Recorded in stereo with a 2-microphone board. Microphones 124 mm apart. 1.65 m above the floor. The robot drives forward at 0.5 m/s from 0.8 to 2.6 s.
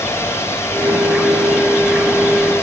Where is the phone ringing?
No phone ringing in this recording.